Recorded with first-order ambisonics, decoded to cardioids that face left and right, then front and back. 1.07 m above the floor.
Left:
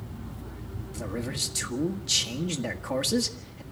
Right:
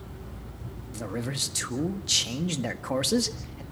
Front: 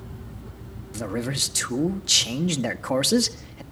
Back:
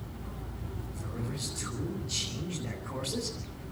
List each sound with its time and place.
0.9 s a man speaking: 10° right, 1.7 m